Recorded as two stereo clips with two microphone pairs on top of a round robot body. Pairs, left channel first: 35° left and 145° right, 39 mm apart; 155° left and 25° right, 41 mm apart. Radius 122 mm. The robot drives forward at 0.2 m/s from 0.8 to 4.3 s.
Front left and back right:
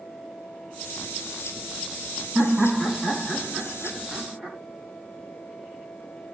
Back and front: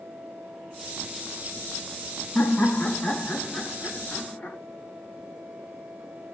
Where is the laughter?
130° left, 1.3 m; by 4.6 s 145° left, 1.5 m.